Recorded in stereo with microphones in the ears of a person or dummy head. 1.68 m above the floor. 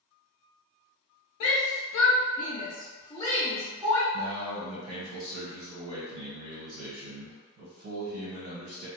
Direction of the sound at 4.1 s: 85° right.